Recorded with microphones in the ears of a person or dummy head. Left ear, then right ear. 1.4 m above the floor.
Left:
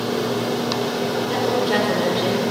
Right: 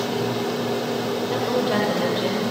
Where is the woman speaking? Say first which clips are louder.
Left 2 dB; centre (ahead or behind), 0.9 m.